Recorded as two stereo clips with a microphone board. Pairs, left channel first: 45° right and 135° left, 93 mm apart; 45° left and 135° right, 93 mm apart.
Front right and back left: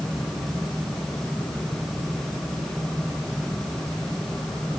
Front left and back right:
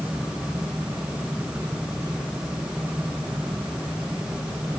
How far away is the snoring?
No snoring in this recording.